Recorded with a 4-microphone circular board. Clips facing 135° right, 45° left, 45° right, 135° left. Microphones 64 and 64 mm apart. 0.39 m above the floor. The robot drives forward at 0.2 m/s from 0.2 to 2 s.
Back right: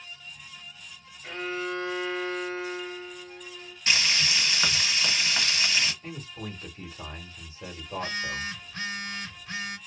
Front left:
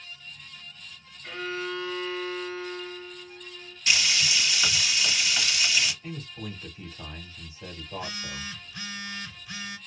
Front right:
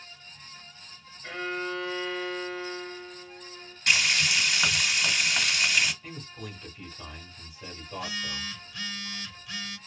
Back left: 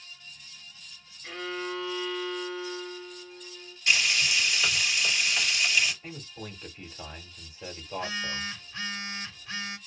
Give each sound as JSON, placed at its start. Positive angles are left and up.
{"t": 1.2, "sound": "a violin", "azimuth_deg": -75, "distance_m": 1.8}
{"t": 3.9, "sound": "frying", "azimuth_deg": -80, "distance_m": 1.8}
{"t": 6.0, "sound": "a man speaking", "azimuth_deg": -165, "distance_m": 1.1}
{"t": 7.9, "sound": "a phone buzzing", "azimuth_deg": -170, "distance_m": 0.8}